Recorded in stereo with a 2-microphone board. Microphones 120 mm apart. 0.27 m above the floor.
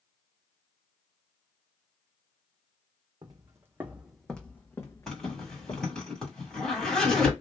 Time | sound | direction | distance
3.2 | footsteps | 35° right (ahead or behind) | 0.9 m
5.1 | a zipper | 5° left (ahead or behind) | 2 m